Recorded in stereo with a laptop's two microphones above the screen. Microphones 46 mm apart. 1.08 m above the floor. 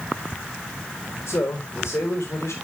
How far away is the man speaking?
About 4 m.